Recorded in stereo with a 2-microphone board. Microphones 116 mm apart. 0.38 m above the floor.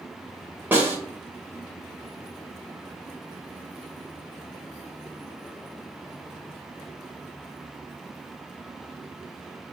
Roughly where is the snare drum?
Centre.